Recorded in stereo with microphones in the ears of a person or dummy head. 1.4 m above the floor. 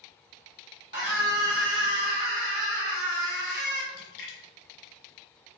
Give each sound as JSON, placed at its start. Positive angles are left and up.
{"t": 0.9, "sound": "a scream", "side_deg": -65, "distance_m": 1.4}
{"t": 3.9, "sound": "a splash", "side_deg": 60, "distance_m": 1.2}